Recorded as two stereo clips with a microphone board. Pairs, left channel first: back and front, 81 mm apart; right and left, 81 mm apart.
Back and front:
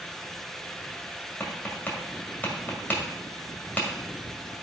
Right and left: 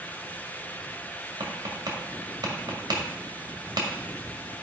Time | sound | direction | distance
1.4 | tapping | 110° left | 2.0 m